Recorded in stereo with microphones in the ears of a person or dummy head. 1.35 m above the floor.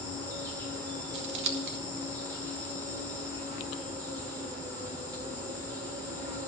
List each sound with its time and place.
0.0 s an insect: 25° right (ahead or behind), 1.4 m
1.1 s scissors: 65° right (ahead or behind), 1.5 m